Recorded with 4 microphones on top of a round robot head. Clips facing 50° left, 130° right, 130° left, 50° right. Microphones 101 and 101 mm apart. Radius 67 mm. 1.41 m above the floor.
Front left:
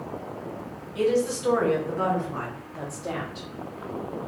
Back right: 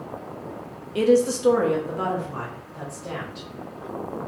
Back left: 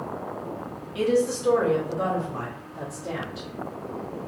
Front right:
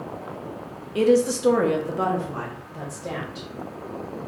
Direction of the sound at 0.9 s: 100° right.